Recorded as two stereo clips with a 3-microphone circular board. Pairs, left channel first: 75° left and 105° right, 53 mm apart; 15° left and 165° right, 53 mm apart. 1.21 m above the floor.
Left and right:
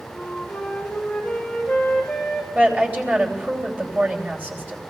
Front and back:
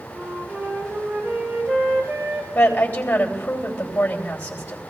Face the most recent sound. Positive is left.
turn(degrees=-45)